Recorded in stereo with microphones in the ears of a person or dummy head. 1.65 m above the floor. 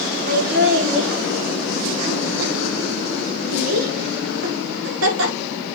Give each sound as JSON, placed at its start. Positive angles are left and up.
{"t": 0.3, "sound": "laughter", "side_deg": -50, "distance_m": 2.5}